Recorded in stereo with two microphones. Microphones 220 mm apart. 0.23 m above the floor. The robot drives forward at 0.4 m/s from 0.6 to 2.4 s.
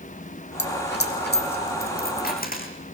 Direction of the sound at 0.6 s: 55° left (ahead or behind).